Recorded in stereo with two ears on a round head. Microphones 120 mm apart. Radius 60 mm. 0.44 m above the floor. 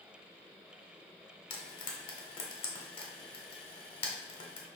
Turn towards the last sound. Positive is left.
turn(degrees=40)  # may be behind; listen again after turning